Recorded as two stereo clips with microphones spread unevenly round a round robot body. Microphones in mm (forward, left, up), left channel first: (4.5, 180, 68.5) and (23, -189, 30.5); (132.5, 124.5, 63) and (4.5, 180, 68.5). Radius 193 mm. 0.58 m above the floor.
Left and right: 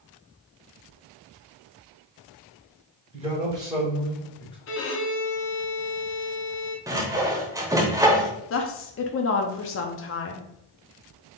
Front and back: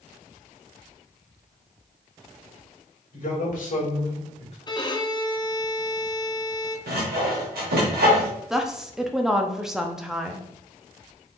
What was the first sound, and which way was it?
A man speaking, 15° right.